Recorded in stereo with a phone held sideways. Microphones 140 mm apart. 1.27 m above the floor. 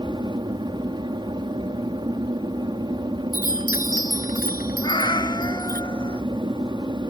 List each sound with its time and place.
0.0 s an aircraft: 30° right (ahead or behind)
3.3 s a chime: 90° left
4.8 s a cat meowing: 35° left (ahead or behind)